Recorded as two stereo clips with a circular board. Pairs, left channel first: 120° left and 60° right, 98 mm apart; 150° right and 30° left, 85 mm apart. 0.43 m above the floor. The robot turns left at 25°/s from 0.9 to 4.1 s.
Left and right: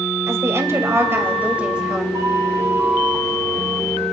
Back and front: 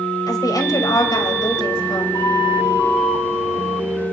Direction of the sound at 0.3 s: 115° right.